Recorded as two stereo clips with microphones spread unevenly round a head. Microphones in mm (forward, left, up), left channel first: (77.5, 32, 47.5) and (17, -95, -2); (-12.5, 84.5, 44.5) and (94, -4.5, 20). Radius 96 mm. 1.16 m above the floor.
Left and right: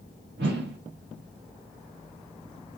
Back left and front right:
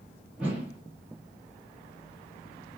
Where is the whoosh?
130° right, 0.7 m.